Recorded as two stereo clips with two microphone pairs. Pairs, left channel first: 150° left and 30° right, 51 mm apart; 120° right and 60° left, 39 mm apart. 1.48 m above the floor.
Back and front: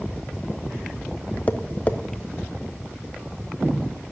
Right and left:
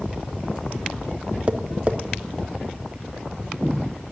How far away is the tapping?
About 0.7 m.